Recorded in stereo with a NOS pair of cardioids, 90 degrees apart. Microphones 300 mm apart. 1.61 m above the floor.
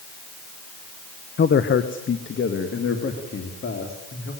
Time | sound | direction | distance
1.4 | a man speaking | 35° left | 1.2 m